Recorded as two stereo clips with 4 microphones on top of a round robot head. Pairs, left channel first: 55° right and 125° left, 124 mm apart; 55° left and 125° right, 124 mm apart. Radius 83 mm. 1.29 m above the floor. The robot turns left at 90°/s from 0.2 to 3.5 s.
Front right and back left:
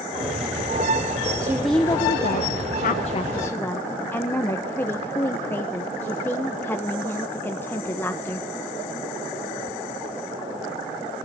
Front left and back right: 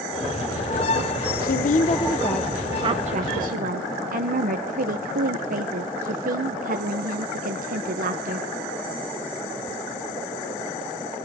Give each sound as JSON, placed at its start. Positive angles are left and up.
{"t": 1.4, "sound": "a woman speaking", "azimuth_deg": 55, "distance_m": 0.9}